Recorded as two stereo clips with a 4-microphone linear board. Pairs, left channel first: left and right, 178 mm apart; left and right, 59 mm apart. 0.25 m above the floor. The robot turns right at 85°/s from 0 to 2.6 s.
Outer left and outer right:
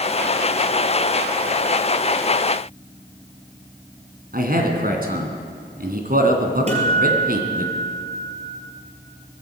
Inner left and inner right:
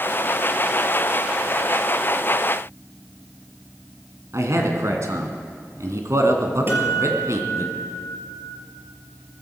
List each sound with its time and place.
4.3 s a man speaking: 60° right (ahead or behind), 2.5 m
6.7 s a guitar: 40° right (ahead or behind), 3.5 m